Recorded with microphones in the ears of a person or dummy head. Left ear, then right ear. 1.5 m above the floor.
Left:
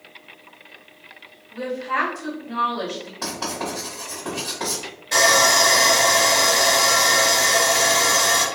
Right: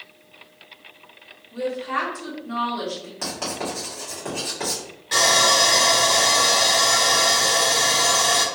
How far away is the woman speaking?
About 1.2 m.